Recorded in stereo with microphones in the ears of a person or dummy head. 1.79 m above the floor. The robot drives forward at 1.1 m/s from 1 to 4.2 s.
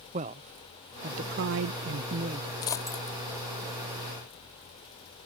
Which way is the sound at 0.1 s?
35° right (ahead or behind).